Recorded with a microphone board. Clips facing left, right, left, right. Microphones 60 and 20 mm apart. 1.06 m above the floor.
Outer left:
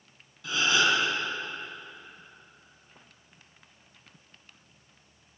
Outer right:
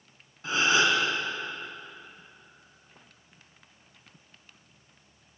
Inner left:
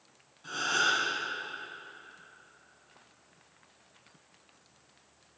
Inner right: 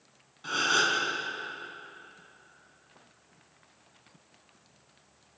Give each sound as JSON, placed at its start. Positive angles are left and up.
{"t": 0.4, "sound": "a gasp", "side_deg": -35, "distance_m": 7.5}